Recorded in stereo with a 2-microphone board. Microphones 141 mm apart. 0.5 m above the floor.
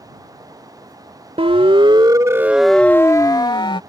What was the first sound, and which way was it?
A siren, 45° right (ahead or behind).